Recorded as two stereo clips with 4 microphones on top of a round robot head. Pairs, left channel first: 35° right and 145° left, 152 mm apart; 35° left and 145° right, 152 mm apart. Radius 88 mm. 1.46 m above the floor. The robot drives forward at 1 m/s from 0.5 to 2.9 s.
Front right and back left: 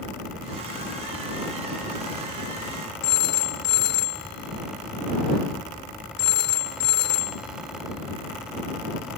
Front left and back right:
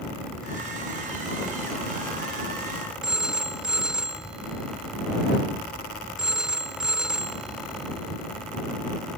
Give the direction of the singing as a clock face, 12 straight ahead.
I don't hear singing.